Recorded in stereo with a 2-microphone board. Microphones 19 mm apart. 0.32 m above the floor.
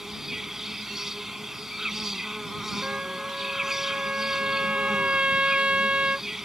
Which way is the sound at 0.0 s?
20° right (ahead or behind).